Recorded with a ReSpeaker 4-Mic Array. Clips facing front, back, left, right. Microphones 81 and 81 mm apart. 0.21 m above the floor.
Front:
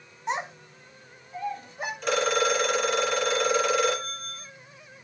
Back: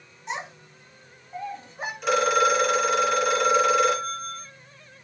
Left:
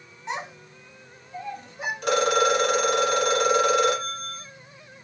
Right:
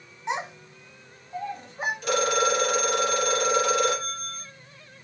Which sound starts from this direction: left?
A phone ringing, at 2.0 s.